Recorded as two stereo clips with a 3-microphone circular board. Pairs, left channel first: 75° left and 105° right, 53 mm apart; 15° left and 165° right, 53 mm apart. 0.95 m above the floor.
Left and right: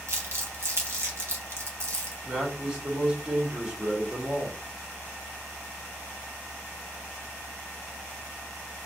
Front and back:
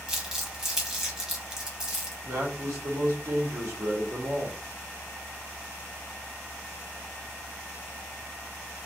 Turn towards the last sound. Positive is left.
turn(degrees=180)